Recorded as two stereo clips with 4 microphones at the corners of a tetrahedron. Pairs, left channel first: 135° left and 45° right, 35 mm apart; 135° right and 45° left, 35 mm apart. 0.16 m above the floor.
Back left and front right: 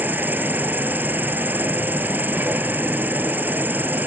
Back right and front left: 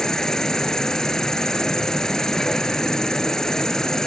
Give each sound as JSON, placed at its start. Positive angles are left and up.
{"t": 0.0, "sound": "an insect", "azimuth_deg": -65, "distance_m": 1.0}